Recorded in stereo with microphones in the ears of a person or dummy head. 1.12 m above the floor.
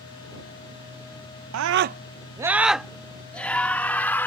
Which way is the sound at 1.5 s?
80° right.